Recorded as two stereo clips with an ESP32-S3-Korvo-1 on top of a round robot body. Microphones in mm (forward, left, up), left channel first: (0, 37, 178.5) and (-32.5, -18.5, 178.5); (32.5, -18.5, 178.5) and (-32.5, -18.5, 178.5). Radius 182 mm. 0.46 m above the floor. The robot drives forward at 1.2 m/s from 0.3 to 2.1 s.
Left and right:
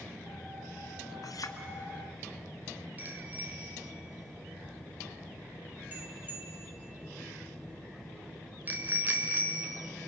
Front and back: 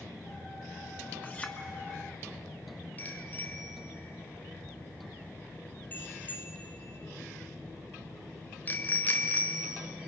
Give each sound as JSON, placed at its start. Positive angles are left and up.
{"t": 1.2, "sound": "a clink", "azimuth_deg": 60, "distance_m": 1.8}
{"t": 3.0, "sound": "a bicycle bell", "azimuth_deg": -55, "distance_m": 2.0}